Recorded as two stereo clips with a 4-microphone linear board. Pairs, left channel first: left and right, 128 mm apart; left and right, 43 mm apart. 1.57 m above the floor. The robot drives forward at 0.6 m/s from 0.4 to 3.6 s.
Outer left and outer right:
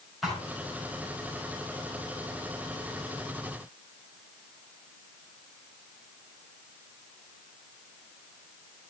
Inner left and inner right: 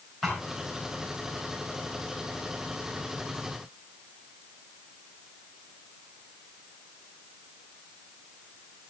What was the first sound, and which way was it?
A thud, centre (ahead or behind).